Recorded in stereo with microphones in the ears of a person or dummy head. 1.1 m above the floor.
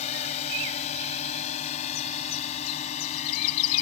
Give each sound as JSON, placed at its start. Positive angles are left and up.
{"t": 0.0, "sound": "a drone", "side_deg": 35}